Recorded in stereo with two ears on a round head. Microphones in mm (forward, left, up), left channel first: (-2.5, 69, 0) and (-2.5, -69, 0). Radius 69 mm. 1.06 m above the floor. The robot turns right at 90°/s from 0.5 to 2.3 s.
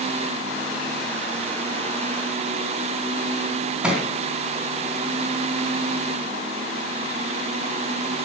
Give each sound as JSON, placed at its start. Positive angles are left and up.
{"t": 3.8, "sound": "a thud", "side_deg": -5, "distance_m": 3.0}